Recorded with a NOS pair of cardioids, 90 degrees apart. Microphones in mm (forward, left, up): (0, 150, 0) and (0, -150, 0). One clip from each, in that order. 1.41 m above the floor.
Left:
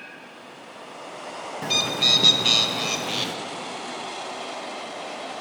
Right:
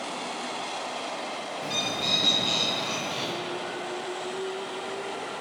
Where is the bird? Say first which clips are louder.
Left 8 dB; 50° left, 0.7 m.